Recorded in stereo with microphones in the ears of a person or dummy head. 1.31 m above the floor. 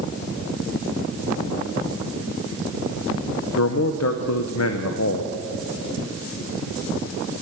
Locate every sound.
3.6 s a man speaking: 80° left, 0.7 m